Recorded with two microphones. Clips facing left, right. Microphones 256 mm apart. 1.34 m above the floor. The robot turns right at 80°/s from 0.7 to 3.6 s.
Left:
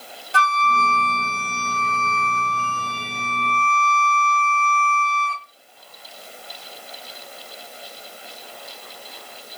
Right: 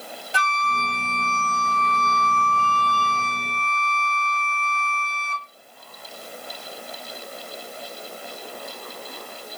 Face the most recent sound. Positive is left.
turn(degrees=-130)